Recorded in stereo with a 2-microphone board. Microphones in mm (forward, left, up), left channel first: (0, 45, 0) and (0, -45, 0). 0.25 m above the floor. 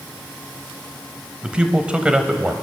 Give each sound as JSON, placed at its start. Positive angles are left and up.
{"t": 1.4, "sound": "a man speaking", "side_deg": -10, "distance_m": 1.1}